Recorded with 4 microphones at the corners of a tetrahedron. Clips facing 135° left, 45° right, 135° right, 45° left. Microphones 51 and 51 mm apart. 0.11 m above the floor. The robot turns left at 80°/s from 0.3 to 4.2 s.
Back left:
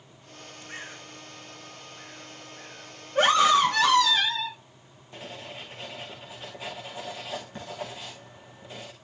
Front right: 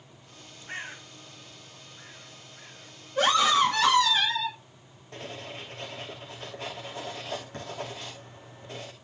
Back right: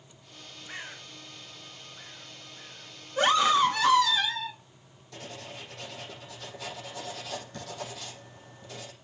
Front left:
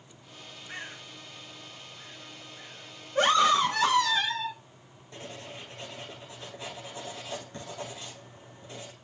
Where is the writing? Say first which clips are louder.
Front right 1 dB, even; 20° right, 6 m.